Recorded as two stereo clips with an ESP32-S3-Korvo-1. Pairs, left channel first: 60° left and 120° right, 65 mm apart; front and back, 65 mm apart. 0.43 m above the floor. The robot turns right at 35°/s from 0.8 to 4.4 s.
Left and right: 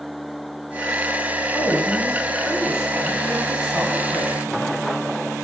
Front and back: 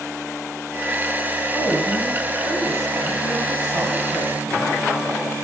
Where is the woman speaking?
120° left, 4 m; by 5.1 s 140° right, 4 m.